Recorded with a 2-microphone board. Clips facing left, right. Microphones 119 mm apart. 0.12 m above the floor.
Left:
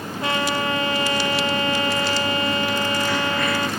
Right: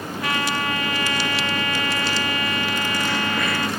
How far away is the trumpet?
About 1.2 m.